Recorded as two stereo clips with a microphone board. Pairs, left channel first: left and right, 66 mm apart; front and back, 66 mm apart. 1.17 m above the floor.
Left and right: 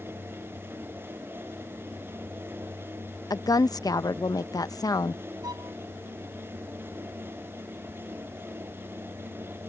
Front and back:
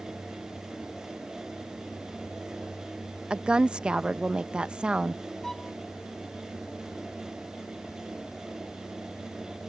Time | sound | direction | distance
3.3 | a woman speaking | 105° left | ?
5.4 | a violin | 80° right | ?